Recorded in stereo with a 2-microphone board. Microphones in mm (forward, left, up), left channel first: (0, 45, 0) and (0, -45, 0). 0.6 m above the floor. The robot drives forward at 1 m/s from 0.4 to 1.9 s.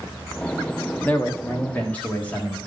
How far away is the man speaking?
About 1.0 m.